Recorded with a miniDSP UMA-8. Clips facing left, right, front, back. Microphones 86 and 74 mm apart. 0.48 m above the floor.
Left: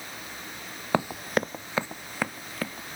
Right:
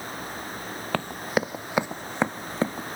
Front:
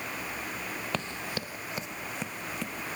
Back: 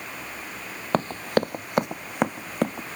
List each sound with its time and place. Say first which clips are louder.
0.9 s running footsteps: left 1 dB, back 15 dB; 155° left; by 3.0 s 150° right